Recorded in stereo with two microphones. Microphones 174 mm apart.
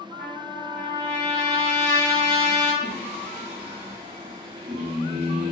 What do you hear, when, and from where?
0.2 s a trumpet: 35° right (ahead or behind), 2.0 m
2.8 s singing: 50° right (ahead or behind), 1.7 m